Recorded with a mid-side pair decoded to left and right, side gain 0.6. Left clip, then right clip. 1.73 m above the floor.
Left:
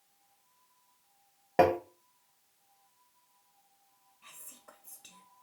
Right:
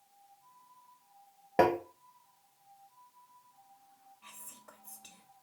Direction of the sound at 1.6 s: 5° left.